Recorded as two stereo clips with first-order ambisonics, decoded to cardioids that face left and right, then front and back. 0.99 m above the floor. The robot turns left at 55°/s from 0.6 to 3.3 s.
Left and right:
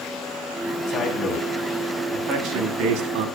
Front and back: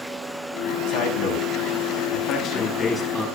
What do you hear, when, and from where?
0.9 s a man speaking: 35° left, 6.5 m; by 3.3 s 95° right, 6.5 m